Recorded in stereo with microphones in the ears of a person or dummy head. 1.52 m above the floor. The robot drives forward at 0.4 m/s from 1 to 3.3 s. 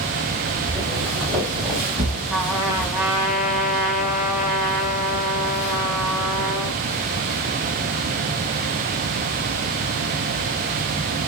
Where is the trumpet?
5° right (ahead or behind), 2.0 m.